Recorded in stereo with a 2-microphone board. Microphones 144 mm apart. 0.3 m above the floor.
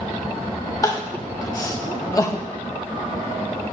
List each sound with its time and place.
0.8 s crying: 25° left (ahead or behind), 0.8 m